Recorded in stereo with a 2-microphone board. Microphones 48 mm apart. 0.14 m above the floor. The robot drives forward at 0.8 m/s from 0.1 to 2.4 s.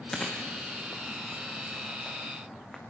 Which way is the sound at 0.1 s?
10° left (ahead or behind).